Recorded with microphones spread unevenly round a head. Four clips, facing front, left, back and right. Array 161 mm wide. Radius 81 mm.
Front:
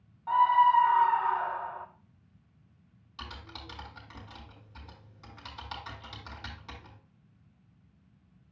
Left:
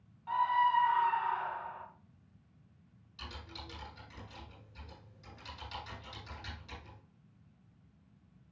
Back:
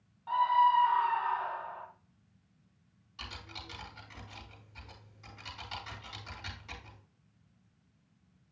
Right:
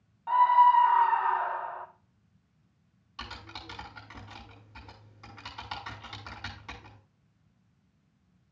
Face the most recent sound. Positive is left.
turn(degrees=-60)